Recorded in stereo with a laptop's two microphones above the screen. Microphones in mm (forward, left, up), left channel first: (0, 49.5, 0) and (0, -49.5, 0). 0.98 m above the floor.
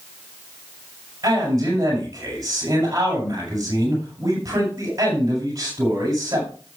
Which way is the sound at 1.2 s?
35° right (ahead or behind).